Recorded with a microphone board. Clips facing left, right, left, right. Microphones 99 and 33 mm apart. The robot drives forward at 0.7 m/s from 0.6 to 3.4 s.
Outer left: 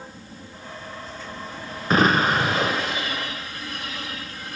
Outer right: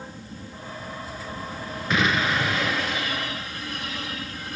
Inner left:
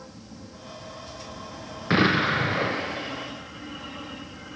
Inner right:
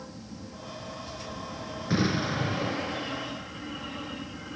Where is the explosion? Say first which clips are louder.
Outer left 5 dB, inner left 7 dB; 40° left (ahead or behind), 0.6 m; by 3.3 s 25° left (ahead or behind), 1.0 m.